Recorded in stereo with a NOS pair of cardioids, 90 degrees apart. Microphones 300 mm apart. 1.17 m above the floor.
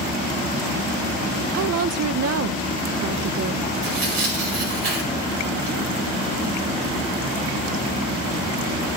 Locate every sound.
1.5 s a woman speaking: 60° right, 0.8 m
3.8 s tearing paper: 55° right, 5.5 m